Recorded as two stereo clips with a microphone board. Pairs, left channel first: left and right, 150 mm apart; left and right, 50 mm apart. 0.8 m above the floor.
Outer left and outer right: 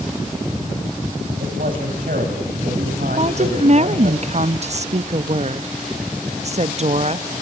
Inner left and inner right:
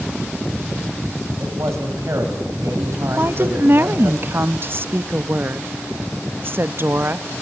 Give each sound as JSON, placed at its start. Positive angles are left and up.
{"t": 1.4, "sound": "a man speaking", "side_deg": -75, "distance_m": 5.0}
{"t": 3.2, "sound": "a woman speaking", "side_deg": -50, "distance_m": 0.6}